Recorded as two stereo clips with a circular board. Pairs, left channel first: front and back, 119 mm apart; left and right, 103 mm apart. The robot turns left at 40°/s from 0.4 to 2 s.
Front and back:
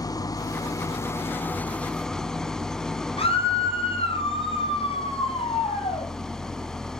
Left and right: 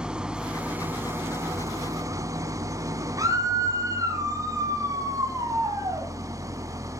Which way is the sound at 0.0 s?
15° right.